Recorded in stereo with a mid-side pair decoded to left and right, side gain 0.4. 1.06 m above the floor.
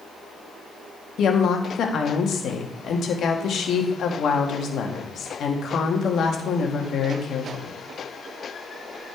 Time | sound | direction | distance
1.2 | a woman speaking | 65° left | 1.8 m